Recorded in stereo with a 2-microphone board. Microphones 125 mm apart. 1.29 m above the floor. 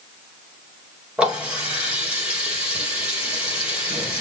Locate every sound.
1.2 s a running tap: 10° right (ahead or behind), 1.9 m